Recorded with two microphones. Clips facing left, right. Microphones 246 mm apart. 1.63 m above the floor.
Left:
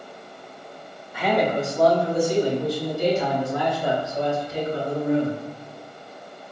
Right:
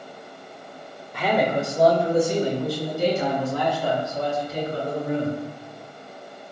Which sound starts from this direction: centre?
A man speaking, at 1.1 s.